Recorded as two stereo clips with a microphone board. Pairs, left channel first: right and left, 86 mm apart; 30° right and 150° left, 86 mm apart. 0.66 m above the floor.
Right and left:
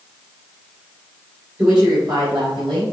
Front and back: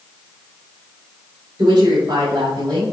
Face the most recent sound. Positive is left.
turn(degrees=105)